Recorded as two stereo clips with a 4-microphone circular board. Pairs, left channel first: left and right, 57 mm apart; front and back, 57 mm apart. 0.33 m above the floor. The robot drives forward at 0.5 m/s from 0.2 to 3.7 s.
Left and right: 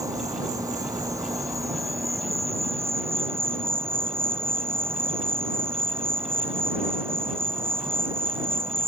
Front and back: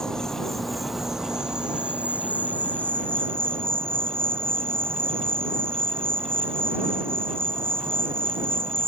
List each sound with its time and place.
0.0 s an insect: 80° right; by 8.9 s 135° right